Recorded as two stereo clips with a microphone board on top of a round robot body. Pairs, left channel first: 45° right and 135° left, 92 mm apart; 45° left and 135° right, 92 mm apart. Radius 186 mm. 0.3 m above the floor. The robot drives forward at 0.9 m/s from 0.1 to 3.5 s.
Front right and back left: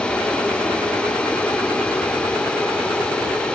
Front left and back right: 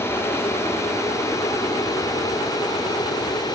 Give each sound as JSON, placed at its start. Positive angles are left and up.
{"t": 0.0, "sound": "an aircraft", "azimuth_deg": 20}